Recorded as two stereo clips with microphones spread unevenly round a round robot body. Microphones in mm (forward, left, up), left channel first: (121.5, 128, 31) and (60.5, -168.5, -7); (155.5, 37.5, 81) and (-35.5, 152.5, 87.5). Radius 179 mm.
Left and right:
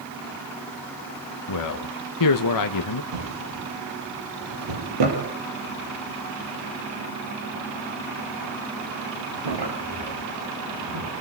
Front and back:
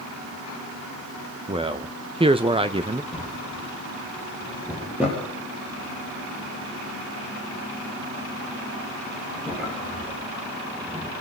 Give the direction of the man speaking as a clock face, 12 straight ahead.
9 o'clock.